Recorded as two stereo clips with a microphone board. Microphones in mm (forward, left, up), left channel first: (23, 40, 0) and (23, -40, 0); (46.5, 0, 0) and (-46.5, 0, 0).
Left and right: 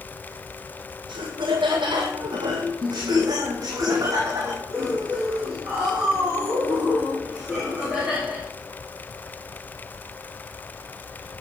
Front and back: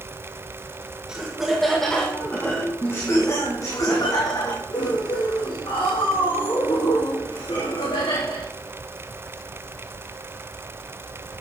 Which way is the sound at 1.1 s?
100° right.